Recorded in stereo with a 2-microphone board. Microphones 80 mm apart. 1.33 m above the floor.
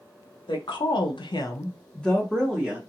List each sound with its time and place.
0.5 s a woman speaking: 70° left (ahead or behind), 1.0 m; by 2.8 s 10° right (ahead or behind), 1.2 m